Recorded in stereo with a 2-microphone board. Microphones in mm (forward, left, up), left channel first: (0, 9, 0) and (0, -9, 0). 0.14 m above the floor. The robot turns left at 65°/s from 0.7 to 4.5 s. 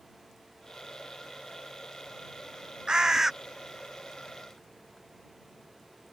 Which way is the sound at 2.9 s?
45° right (ahead or behind).